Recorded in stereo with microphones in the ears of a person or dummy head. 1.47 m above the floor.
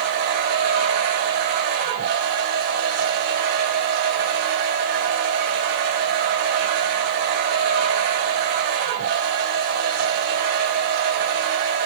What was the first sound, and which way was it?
A machine running, 75° right (ahead or behind).